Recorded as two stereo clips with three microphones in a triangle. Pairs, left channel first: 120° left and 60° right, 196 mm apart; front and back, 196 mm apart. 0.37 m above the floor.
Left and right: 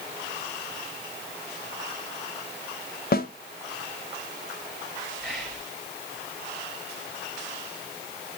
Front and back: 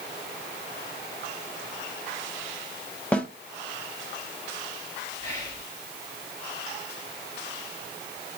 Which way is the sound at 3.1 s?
85° left.